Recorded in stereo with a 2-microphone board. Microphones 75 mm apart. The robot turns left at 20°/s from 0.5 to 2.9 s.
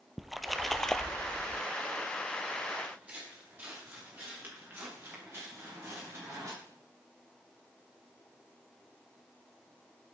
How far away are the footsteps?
About 7 m.